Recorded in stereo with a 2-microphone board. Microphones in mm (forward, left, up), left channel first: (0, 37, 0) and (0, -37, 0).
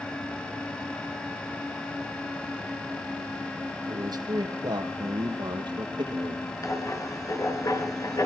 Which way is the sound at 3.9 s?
70° right (ahead or behind).